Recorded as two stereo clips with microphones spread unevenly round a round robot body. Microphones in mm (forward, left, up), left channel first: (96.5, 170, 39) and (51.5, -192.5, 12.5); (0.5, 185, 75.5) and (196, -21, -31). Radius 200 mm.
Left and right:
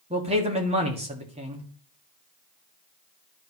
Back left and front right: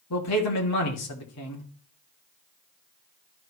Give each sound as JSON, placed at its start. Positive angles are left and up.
{"t": 0.1, "sound": "a man speaking", "azimuth_deg": -170, "distance_m": 1.5}